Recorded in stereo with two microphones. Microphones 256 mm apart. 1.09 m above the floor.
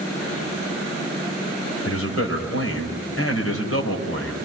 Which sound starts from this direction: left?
A man speaking, at 1.9 s.